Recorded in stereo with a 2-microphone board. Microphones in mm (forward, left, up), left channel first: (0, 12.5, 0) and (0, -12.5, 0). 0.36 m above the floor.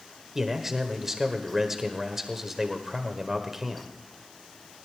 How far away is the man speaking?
About 1.5 m.